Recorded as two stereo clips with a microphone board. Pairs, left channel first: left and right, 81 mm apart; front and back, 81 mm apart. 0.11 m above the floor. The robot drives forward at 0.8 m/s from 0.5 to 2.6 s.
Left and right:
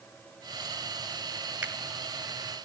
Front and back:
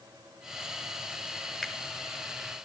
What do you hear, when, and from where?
1.6 s a finger snap: 95° right, 1.0 m; by 1.7 s 110° right, 1.0 m